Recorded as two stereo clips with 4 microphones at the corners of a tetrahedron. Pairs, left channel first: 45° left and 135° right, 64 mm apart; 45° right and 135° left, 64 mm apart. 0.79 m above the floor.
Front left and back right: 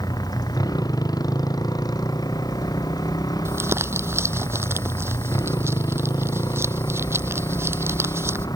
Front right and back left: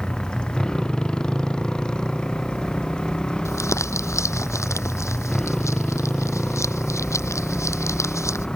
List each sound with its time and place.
0.0 s a motorcycle: 35° left
3.5 s crumpling: 85° right